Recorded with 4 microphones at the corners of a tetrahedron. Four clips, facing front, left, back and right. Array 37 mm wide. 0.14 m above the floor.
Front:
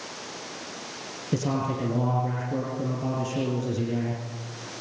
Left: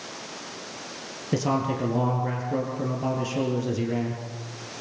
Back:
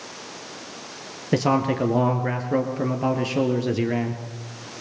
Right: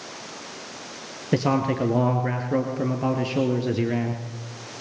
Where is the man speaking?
150° right, 3 m.